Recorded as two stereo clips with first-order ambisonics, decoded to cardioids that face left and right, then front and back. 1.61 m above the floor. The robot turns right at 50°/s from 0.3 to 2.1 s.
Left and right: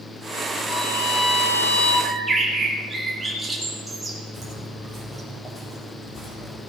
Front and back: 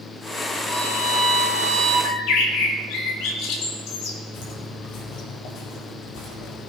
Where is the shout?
I don't hear a shout.